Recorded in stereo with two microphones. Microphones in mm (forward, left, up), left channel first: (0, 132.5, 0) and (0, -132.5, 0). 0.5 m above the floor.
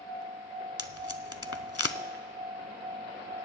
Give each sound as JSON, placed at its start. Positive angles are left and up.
{"t": 0.8, "sound": "tape being pulled", "side_deg": 65, "distance_m": 0.7}